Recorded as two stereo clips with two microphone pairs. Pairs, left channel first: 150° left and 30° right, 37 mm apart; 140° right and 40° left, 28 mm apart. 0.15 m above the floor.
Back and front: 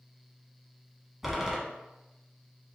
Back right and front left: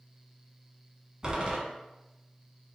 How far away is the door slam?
About 1.0 m.